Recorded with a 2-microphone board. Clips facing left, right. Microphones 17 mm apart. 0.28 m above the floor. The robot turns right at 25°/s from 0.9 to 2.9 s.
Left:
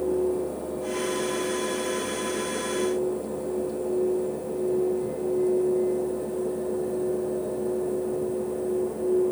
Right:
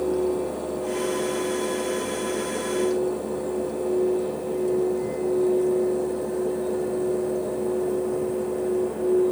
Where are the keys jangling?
No keys jangling in this recording.